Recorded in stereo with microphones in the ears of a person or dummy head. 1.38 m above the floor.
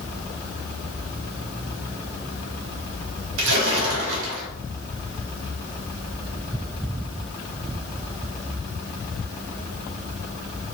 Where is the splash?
80° right, 0.9 m.